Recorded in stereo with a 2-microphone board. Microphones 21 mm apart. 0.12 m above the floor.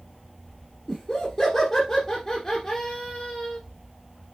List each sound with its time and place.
0.9 s laughter: 15° left (ahead or behind), 1.7 m